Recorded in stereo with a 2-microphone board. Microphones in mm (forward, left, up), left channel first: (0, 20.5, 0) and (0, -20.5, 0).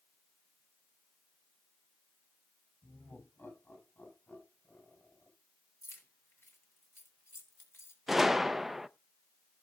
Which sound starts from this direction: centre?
A gunshot, at 8.1 s.